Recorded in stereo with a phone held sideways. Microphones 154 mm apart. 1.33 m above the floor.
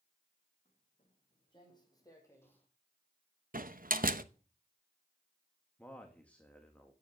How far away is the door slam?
About 0.9 m.